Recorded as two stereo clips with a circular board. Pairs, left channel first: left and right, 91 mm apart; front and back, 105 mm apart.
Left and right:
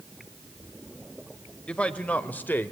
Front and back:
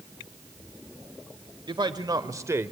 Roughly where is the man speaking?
Behind.